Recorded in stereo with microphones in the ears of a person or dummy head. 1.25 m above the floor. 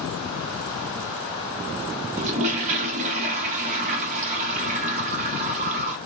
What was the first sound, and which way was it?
A toilet flushing, 40° right (ahead or behind).